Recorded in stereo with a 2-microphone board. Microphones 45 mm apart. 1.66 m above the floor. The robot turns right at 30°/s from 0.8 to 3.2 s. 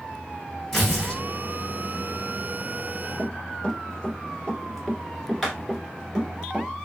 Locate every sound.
0.7 s tearing paper: 10° left (ahead or behind), 2 m; by 1.2 s 20° left (ahead or behind), 2 m
3.2 s running footsteps: 25° left (ahead or behind), 1.8 m; by 6.7 s 15° right (ahead or behind), 1.8 m